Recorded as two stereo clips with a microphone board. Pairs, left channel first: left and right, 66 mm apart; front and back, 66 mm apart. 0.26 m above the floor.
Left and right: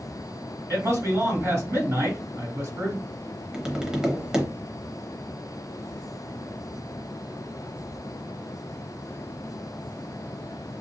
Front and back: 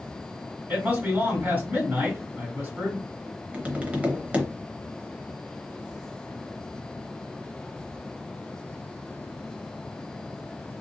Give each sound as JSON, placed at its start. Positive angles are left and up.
{"t": 0.7, "sound": "a man speaking", "azimuth_deg": -125, "distance_m": 2.0}
{"t": 3.5, "sound": "tapping", "azimuth_deg": -155, "distance_m": 0.8}